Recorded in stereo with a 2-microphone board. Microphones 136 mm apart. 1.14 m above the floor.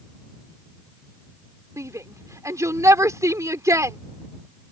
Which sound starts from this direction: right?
A shout, at 1.8 s.